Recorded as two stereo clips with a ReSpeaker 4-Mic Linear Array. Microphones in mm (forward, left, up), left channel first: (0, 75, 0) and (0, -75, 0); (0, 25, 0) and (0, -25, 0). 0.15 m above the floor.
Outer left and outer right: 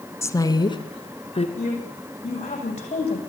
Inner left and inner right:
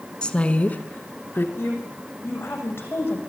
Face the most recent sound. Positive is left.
turn(degrees=45)  # may be behind; listen again after turning